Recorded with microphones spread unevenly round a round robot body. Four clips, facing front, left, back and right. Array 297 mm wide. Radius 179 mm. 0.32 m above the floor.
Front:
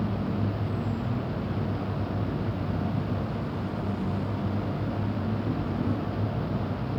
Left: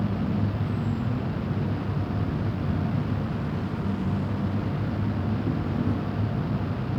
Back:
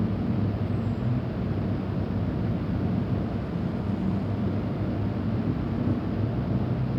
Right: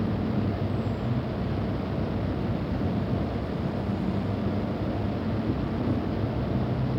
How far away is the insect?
About 7.5 m.